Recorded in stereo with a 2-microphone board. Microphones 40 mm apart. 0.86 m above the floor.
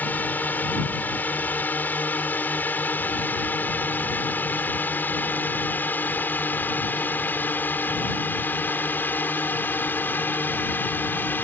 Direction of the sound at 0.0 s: 50° left (ahead or behind).